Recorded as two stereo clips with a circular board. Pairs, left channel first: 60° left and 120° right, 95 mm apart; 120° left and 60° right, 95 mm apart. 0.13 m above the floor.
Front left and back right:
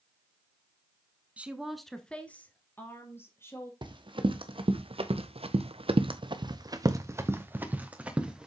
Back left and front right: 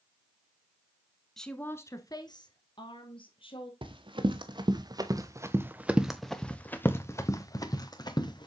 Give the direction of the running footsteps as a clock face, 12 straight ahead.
3 o'clock.